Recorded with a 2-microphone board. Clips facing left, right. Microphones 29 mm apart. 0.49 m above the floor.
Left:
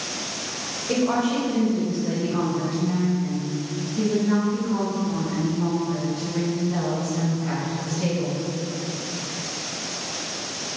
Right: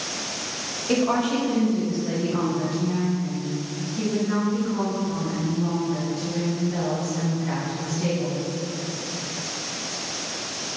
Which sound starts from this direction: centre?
A woman speaking, at 0.9 s.